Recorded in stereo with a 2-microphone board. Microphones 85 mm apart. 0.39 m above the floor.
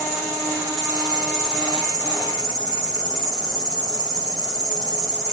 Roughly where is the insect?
Left.